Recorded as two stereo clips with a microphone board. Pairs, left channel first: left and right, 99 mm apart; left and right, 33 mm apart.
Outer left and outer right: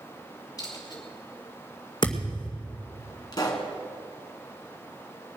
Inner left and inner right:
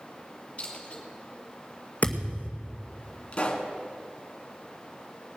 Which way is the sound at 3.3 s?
40° left (ahead or behind).